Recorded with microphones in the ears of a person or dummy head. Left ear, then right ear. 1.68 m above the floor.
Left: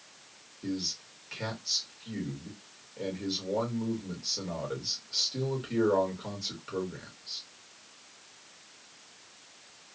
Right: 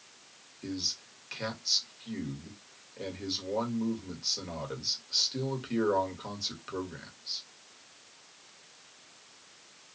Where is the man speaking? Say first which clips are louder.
Right 1 dB; 20° right (ahead or behind), 1.5 m.